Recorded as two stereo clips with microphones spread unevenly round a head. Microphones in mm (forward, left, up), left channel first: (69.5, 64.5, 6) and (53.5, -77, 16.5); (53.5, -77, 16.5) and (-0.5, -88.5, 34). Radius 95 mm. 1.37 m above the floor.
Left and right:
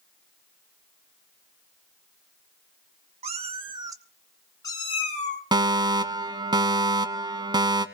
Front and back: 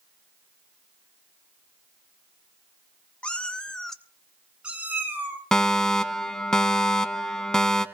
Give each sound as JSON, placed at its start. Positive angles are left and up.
{"t": 3.2, "sound": "a cat meowing", "azimuth_deg": -70, "distance_m": 1.3}
{"t": 5.5, "sound": "a fire alarm", "azimuth_deg": -40, "distance_m": 1.2}